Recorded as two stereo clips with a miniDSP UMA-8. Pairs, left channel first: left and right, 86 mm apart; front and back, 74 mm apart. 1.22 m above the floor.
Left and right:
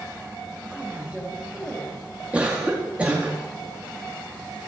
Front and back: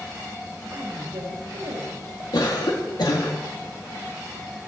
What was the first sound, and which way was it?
A woman speaking, 170° right.